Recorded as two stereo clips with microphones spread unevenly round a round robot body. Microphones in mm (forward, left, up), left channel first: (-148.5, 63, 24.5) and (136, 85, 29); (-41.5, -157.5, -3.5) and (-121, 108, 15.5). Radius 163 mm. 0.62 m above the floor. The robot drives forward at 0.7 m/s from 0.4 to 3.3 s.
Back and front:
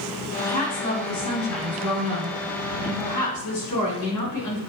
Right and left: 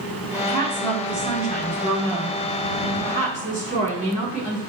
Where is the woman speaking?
165° left, 4.5 m; by 4.6 s 170° left, 6.5 m.